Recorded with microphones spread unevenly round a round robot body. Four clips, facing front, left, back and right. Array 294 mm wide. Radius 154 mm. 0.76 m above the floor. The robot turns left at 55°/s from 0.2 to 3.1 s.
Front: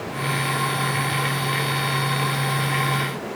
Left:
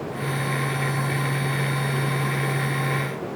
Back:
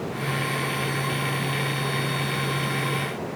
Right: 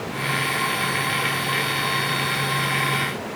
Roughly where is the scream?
No scream in this recording.